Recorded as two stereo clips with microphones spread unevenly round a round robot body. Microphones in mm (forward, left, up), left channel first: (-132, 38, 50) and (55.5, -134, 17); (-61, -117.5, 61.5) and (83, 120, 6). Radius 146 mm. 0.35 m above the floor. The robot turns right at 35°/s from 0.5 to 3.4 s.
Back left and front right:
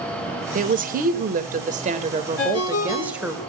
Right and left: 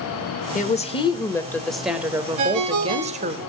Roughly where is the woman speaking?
Ahead right.